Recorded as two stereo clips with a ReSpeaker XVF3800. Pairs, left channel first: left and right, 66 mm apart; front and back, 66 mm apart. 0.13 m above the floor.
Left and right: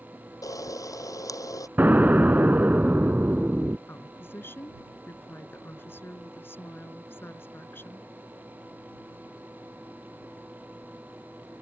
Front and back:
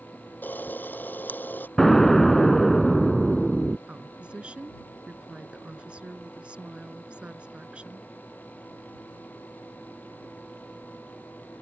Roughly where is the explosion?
Right.